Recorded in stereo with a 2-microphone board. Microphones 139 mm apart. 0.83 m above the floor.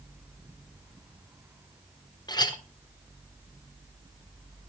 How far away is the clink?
About 1.3 m.